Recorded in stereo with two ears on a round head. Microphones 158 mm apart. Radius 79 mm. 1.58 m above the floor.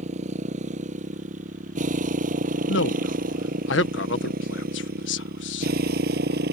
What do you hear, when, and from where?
0.0 s a motorcycle: 40° right (ahead or behind); by 6.5 s 60° right (ahead or behind)
2.7 s a man speaking: 75° left (ahead or behind)